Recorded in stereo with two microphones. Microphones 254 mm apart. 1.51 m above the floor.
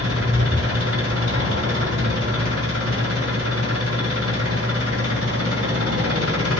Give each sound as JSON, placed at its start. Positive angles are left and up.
{"t": 0.0, "sound": "an engine running", "side_deg": -85, "distance_m": 6.5}